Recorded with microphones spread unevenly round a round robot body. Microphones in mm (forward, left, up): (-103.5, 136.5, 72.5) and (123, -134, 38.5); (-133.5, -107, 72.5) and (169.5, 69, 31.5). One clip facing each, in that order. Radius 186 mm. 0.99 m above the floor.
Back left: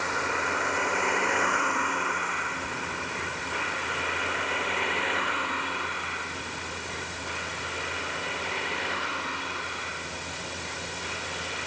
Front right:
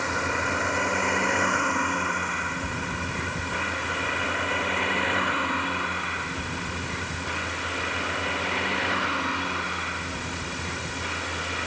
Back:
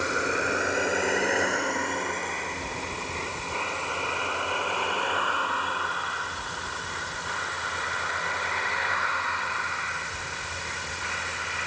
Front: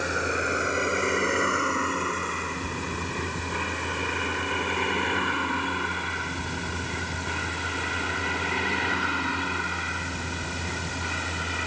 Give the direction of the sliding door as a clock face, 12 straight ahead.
No sliding door in this recording.